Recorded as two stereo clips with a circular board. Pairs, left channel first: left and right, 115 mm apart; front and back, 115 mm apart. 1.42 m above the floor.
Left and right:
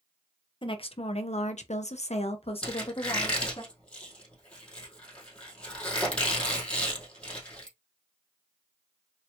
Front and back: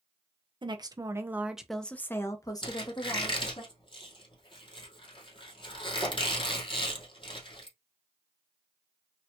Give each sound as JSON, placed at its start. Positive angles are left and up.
{"t": 0.6, "sound": "a woman speaking", "azimuth_deg": 135, "distance_m": 0.9}
{"t": 2.6, "sound": "a squeak", "azimuth_deg": 15, "distance_m": 2.0}